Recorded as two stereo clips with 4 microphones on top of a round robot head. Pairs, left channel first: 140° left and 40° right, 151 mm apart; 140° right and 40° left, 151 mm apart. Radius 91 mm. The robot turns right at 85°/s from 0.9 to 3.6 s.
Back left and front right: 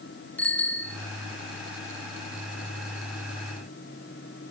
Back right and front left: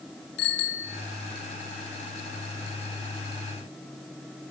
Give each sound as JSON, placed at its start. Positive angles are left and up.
{"t": 0.4, "sound": "a bicycle bell", "azimuth_deg": -140, "distance_m": 3.0}